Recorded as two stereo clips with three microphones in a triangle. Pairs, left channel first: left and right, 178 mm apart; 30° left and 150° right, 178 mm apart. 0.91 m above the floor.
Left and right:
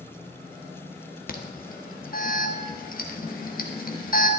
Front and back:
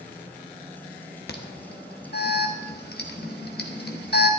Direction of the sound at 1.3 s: 55° left.